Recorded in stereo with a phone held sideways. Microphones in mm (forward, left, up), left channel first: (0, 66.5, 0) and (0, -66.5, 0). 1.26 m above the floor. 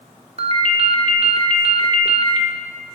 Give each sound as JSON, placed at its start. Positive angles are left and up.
{"t": 0.4, "sound": "a ringtone", "side_deg": -50, "distance_m": 0.9}